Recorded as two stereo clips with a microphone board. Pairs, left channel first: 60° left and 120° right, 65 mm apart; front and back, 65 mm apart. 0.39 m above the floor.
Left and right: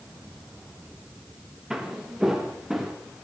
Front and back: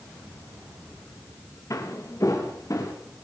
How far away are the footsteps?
About 4.5 m.